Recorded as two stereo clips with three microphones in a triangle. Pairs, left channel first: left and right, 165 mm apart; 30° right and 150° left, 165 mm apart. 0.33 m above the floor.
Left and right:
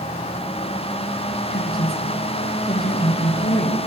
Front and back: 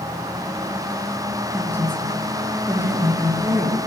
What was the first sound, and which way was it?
A woman speaking, 75° left.